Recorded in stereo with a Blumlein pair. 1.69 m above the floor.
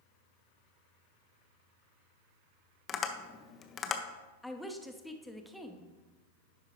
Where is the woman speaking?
Straight ahead, 0.9 m.